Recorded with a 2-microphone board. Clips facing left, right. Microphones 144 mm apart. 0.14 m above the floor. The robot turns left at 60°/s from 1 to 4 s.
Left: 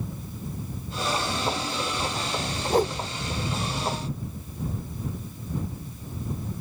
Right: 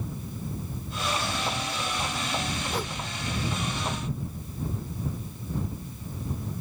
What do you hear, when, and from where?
2.7 s a whoosh: 50° left (ahead or behind); by 3.0 s 35° left (ahead or behind)